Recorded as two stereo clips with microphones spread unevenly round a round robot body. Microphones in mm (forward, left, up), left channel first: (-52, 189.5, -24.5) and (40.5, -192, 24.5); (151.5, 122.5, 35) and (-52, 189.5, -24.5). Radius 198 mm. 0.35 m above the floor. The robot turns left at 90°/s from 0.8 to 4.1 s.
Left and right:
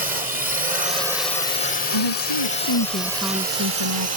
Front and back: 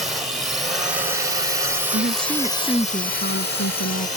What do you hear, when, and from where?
0.0 s a drone: 140° right; by 4.2 s 75° right
1.9 s a woman speaking: 130° left; by 4.1 s 65° right